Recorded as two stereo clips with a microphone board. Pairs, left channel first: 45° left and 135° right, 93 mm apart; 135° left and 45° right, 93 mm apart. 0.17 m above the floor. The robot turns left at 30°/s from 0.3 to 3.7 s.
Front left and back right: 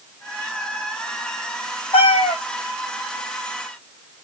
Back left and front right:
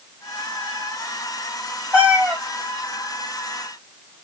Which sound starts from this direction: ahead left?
A cat meowing, at 1.9 s.